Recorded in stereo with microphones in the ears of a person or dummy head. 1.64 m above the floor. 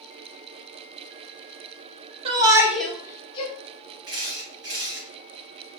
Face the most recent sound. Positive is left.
turn(degrees=-25)  # may be behind; listen again after turning